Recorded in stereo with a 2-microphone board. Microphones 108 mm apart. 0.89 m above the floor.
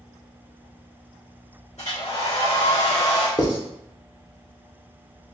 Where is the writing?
35° left (ahead or behind), 0.8 m.